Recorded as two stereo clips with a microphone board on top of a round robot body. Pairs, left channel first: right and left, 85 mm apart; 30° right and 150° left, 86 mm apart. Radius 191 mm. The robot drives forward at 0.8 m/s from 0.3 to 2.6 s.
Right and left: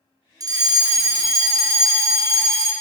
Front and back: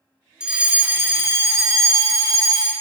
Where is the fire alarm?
75° left, 2.5 m; by 2.7 s 130° left, 2.5 m.